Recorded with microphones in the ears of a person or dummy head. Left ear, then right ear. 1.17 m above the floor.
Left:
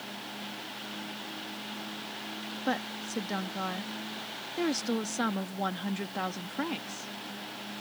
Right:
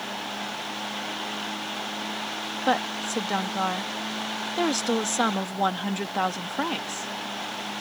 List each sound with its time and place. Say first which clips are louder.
2.6 s a woman speaking: right 8 dB; 35° right (ahead or behind)